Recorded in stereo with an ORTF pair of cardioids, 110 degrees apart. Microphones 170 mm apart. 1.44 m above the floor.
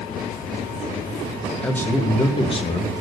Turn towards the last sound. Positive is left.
turn(degrees=45)